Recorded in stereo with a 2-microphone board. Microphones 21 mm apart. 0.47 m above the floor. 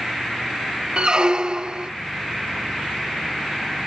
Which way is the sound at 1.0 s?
40° right (ahead or behind).